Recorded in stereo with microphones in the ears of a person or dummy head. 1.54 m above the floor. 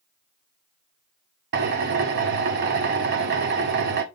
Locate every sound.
1.5 s a drill: 50° right (ahead or behind), 0.7 m